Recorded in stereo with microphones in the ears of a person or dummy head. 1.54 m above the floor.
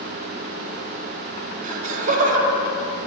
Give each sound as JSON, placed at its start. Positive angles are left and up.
{"t": 1.6, "sound": "laughter", "side_deg": -50, "distance_m": 0.8}